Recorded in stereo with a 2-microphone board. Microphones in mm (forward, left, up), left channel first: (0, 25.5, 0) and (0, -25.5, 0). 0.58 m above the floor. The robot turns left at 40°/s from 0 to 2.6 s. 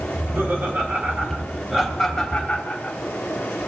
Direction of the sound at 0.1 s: 65° right (ahead or behind).